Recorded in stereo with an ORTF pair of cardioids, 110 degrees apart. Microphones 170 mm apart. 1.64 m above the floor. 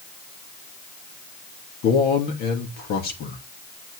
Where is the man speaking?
65° left, 3 m.